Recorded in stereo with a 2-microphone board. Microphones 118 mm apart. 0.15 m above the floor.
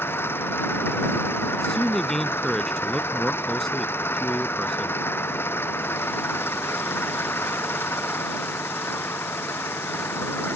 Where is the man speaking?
5° left (ahead or behind).